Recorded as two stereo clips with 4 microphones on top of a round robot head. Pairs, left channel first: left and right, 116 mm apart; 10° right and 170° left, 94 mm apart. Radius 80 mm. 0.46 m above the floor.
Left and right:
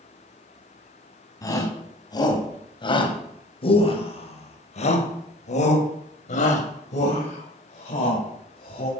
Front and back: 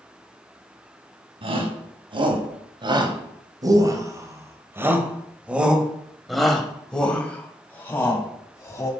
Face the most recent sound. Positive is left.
turn(degrees=50)